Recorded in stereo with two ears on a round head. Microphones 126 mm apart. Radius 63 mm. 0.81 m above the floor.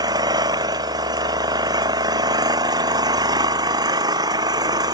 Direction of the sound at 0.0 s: 30° right (ahead or behind).